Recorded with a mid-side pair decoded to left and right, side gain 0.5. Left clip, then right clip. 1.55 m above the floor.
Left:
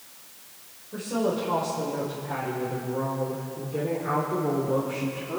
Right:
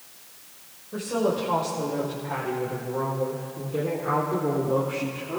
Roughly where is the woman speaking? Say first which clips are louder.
Right 2 dB; ahead.